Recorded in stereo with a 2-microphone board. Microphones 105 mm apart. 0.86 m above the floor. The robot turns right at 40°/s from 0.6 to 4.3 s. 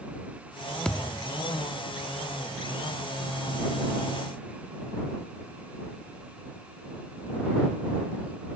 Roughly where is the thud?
Centre.